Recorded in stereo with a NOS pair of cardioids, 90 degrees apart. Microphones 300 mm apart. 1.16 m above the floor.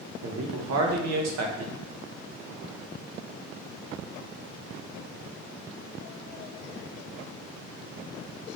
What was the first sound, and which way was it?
A man speaking, 60° right.